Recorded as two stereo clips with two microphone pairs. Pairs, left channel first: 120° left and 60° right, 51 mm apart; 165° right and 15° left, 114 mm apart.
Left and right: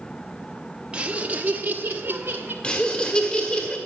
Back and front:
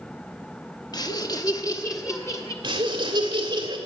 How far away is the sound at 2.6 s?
About 1.7 m.